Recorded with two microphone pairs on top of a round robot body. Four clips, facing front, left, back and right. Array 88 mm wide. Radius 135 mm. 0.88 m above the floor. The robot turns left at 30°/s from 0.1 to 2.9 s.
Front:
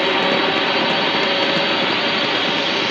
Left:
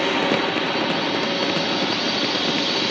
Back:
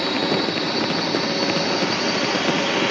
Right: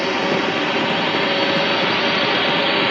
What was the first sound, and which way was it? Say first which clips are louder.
A drone: right 1 dB, front 4 dB; 5° right.